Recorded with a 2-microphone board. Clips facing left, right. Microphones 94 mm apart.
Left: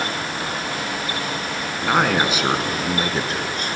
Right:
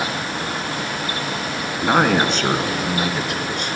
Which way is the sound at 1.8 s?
10° right (ahead or behind).